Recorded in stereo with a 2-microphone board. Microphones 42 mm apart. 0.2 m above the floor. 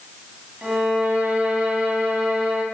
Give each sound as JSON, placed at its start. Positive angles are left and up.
{"t": 0.6, "sound": "a violin", "side_deg": -30, "distance_m": 1.3}